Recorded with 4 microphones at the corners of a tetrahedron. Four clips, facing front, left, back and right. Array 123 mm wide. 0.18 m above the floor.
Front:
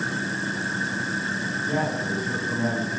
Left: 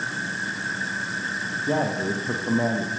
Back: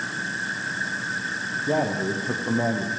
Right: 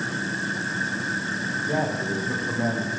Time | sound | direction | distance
1.6 | a man speaking | 140° left | 6 m